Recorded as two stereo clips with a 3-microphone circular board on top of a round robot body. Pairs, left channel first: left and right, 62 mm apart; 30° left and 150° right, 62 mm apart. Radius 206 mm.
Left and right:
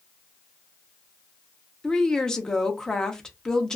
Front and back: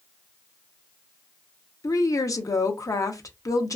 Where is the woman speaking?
10° left, 0.8 m.